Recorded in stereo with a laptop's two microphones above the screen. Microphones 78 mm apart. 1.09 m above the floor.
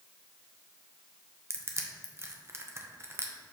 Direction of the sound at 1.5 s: 35° right (ahead or behind).